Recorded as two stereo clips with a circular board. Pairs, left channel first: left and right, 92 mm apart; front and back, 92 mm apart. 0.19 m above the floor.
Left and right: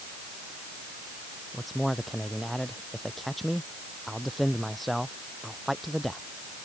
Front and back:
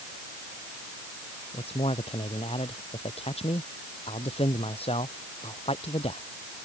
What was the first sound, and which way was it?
A man speaking, straight ahead.